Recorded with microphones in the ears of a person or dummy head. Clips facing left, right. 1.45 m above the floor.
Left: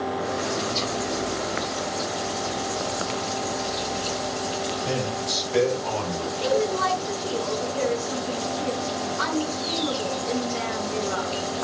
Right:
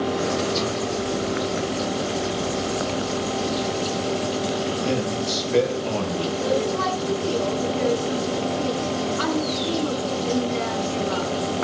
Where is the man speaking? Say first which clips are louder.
Right 4 dB; 60° right (ahead or behind), 8 m; by 6.3 s 50° right (ahead or behind), 7.5 m.